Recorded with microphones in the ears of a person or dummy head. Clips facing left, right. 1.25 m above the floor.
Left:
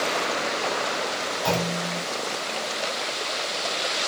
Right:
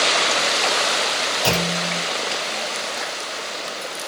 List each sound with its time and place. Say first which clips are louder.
1.4 s a clunk: right 2 dB; 45° right (ahead or behind), 3.5 m